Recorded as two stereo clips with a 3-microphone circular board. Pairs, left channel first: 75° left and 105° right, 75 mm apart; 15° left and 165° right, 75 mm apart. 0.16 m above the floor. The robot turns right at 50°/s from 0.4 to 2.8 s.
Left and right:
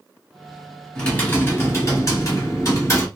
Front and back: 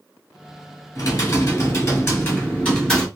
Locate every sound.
0.9 s typing on a keyboard: straight ahead, 1.5 m; by 3.1 s 95° left, 1.5 m